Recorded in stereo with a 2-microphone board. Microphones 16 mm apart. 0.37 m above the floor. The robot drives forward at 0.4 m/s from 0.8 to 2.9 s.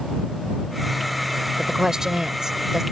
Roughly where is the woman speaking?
Right.